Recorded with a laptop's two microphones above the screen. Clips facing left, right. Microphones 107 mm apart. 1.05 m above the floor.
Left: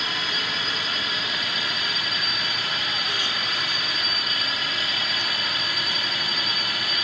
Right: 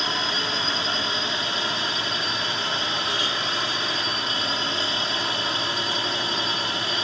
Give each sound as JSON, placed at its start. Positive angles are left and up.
{"t": 0.0, "sound": "a drone", "side_deg": -30}